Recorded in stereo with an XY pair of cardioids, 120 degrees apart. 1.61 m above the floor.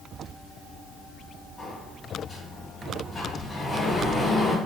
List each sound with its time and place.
1.6 s a sliding door: 25° left, 1.8 m